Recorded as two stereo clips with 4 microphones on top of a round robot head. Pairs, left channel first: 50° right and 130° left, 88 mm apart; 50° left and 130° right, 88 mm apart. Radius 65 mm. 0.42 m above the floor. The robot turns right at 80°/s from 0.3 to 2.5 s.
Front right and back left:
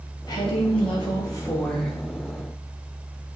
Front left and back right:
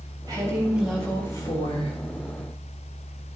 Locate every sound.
0.3 s a woman speaking: 85° right, 3 m; by 2.0 s 45° left, 3 m